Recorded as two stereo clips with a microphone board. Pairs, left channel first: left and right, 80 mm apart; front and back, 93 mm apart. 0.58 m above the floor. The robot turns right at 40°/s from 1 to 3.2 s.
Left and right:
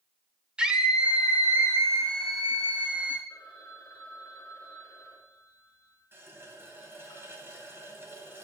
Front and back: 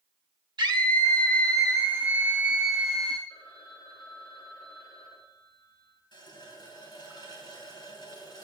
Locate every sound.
0.6 s a scream: 165° right, 2 m; by 3.2 s 80° right, 2 m
3.3 s a phone ringing: 35° left, 5 m
6.1 s a running tap: 30° right, 3 m